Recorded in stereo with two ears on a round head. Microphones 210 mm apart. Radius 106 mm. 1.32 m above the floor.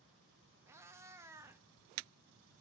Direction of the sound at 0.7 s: 10° right (ahead or behind).